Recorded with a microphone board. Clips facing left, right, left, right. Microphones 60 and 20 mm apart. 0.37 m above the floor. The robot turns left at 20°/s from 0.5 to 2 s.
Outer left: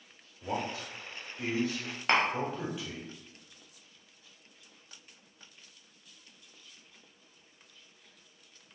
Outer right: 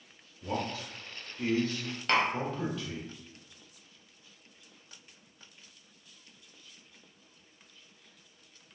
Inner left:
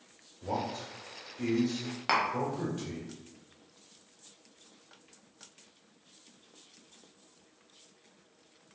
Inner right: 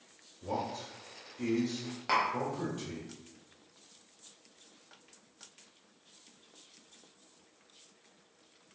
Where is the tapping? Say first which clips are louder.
Even, inner left 1 dB; 30° left (ahead or behind), 0.7 m.